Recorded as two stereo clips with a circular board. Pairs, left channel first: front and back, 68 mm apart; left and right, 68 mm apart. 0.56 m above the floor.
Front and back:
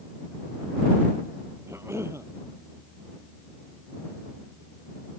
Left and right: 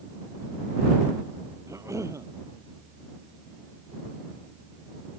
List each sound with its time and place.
1.7 s a cough: 130° right